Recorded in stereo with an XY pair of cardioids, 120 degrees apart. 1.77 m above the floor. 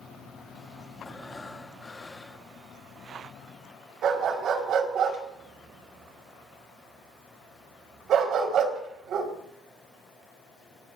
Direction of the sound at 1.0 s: 20° left.